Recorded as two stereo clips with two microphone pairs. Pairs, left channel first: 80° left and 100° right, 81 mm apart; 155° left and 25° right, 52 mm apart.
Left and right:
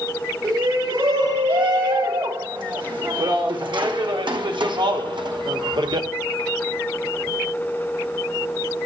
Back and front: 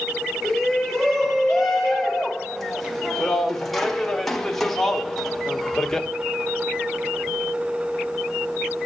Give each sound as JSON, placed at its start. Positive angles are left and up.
{"t": 0.4, "sound": "a shout", "azimuth_deg": -120, "distance_m": 4.0}